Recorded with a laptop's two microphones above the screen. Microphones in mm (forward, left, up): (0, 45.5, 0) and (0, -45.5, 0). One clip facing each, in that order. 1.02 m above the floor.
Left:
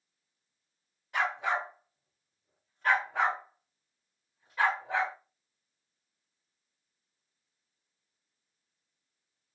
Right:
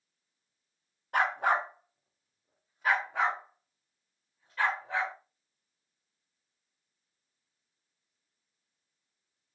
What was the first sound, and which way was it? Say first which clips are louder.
A dog barking: right 3 dB; 50° right (ahead or behind).